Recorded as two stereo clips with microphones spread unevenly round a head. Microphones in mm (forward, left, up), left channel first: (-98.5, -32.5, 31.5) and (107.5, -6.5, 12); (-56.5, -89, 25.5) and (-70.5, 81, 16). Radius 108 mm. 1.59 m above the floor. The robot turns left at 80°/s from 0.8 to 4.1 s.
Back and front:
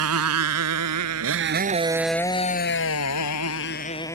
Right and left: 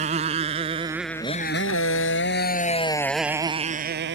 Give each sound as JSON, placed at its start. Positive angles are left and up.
{"t": 0.0, "sound": "a motorcycle", "azimuth_deg": 30}